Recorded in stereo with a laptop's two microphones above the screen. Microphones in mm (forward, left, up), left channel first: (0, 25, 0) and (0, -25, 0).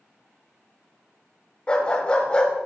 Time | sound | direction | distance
1.7 | a dog barking | 20° left (ahead or behind) | 1.1 m